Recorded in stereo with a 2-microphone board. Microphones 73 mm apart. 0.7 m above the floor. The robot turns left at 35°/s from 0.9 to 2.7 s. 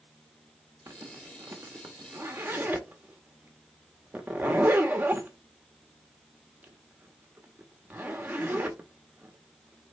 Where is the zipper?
45° right (ahead or behind), 1.2 m; by 9.9 s 25° right (ahead or behind), 1.2 m.